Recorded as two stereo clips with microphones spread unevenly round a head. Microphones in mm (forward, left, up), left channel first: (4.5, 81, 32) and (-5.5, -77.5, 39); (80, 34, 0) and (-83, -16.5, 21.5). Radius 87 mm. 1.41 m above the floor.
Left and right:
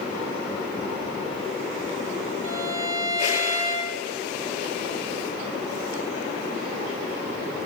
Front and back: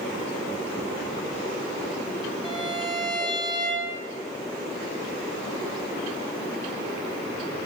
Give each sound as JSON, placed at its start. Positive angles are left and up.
{"t": 2.4, "sound": "a violin", "azimuth_deg": -95, "distance_m": 7.0}